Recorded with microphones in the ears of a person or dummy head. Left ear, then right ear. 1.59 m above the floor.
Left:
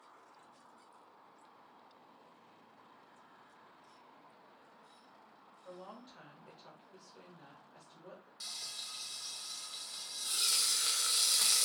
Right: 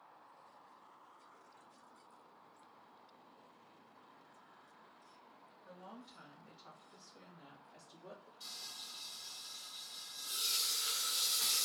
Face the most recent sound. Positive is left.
turn(degrees=65)  # may be behind; listen again after turning